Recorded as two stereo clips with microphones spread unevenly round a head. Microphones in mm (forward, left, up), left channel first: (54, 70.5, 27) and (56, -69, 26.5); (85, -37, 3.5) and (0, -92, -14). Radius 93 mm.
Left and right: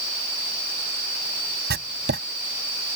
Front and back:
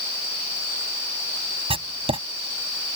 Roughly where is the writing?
Behind right.